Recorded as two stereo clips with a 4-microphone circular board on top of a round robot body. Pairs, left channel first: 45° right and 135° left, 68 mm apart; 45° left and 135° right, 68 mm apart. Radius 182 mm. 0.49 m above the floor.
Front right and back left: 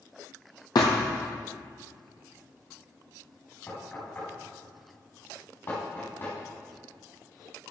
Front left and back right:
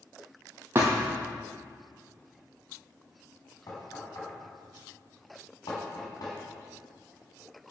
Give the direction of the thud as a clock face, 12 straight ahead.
2 o'clock.